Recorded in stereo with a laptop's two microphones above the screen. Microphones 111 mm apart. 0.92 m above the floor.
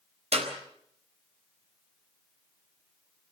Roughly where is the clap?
Right.